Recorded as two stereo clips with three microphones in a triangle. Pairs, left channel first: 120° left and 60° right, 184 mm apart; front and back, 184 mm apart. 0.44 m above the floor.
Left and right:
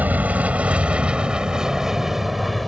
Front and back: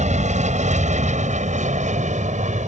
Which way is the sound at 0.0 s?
140° right.